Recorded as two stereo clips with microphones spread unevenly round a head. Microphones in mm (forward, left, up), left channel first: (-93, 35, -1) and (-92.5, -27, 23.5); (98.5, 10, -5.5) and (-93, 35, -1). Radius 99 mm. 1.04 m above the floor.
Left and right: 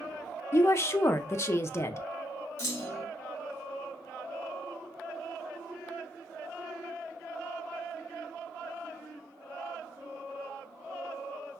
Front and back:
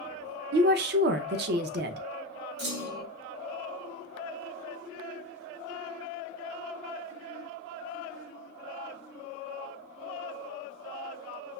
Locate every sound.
0.5 s a woman speaking: 135° left, 0.6 m
2.6 s a clunk: 140° left, 2.5 m